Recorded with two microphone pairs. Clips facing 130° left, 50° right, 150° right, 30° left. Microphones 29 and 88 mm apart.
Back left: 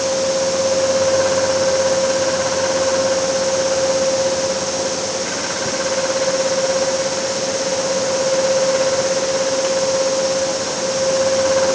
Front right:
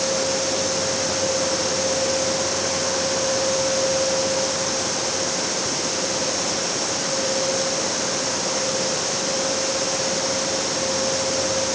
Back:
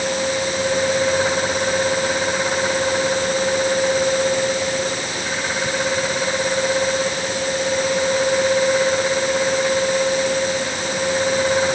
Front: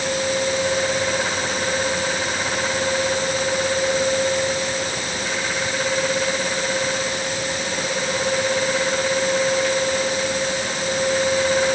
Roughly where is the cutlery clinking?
I don't hear cutlery clinking.